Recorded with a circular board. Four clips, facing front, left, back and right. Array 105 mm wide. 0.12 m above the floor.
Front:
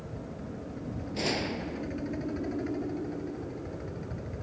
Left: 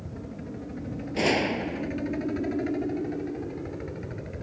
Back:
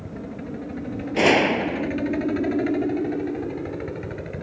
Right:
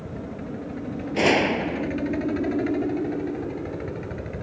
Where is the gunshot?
160° right.